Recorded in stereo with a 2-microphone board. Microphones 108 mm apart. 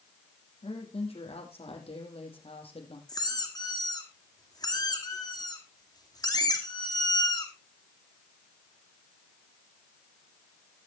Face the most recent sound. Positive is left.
turn(degrees=40)  # may be behind; listen again after turning